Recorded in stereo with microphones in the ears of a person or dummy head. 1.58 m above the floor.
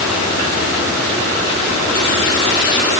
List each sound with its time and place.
Only background noise.